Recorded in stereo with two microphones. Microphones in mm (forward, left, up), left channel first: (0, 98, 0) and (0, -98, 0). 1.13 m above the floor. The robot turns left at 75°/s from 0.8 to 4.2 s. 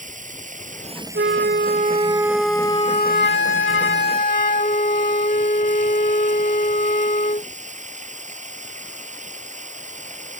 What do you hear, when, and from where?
0.0 s running water: 140° right; by 10.4 s 35° right
1.1 s a flute: 85° right; by 7.5 s 45° left